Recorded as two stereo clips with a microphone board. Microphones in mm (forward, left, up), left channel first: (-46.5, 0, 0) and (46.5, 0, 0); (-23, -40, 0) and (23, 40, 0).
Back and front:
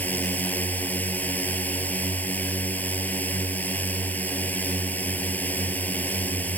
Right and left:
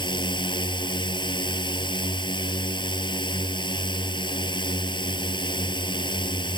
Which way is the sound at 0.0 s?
110° right.